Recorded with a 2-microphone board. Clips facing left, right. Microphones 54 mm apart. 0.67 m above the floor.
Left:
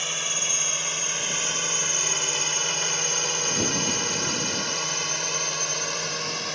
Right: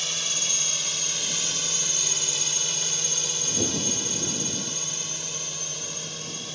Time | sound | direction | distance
0.0 | a drone | 25° left (ahead or behind) | ?